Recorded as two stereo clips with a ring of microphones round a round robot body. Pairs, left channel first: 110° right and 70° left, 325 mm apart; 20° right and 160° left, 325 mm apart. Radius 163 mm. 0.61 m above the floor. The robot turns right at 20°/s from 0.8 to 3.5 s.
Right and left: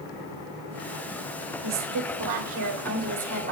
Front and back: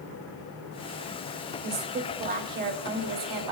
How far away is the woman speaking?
About 2.5 m.